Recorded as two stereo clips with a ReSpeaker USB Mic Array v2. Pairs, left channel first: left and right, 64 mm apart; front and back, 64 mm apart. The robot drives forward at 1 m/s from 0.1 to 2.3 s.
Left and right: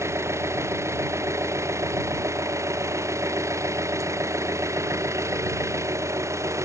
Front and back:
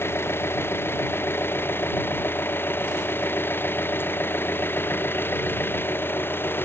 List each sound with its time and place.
0.0 s an engine running: 50° right; by 6.7 s 55° right